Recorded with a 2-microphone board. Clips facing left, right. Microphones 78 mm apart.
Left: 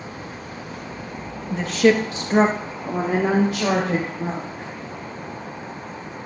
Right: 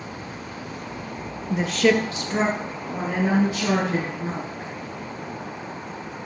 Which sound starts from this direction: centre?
A woman speaking, at 1.5 s.